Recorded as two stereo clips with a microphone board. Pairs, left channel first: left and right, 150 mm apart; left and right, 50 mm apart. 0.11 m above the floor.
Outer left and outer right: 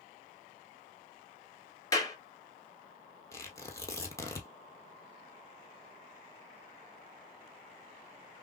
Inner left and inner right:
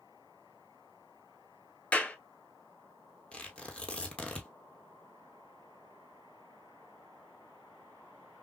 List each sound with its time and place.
1.9 s a clap: 20° left (ahead or behind), 1.3 m
3.3 s tearing paper: 20° left (ahead or behind), 1.1 m